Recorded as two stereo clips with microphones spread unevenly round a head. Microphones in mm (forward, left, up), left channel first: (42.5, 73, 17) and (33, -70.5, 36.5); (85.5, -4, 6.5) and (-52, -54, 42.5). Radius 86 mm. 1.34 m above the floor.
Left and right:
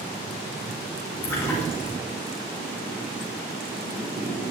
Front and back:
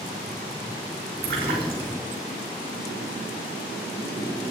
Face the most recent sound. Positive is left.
turn(degrees=165)